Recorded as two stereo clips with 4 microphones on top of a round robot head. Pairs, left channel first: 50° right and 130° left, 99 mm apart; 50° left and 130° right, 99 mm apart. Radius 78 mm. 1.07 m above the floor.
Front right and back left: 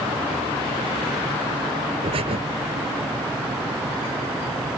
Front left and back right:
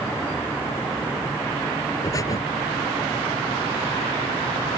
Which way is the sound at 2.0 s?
105° left.